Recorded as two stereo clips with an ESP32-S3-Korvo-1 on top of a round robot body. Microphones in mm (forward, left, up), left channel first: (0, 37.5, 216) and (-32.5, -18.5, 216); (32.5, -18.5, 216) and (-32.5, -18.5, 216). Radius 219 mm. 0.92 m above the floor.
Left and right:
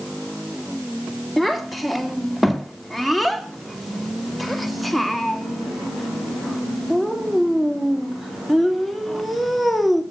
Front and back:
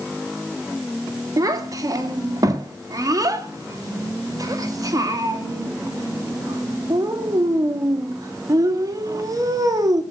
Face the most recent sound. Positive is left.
turn(degrees=150)